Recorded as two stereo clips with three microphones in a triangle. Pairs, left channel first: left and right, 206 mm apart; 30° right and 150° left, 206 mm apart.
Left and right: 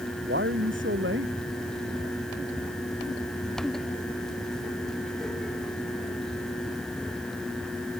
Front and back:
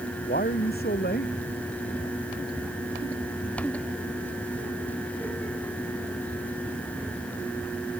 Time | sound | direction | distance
0.3 | a man speaking | 70° right | ?